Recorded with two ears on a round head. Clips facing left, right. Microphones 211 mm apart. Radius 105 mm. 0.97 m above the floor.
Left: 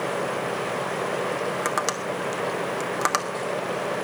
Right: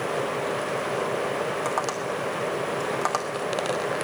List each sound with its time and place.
1.6 s tapping: 25° left (ahead or behind), 1.4 m